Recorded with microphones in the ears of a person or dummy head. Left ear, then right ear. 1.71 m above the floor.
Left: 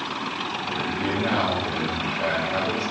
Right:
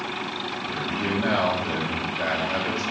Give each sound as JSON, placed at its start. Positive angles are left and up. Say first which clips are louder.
{"t": 0.7, "sound": "a man speaking", "louder": "even", "side_deg": -55, "distance_m": 2.5}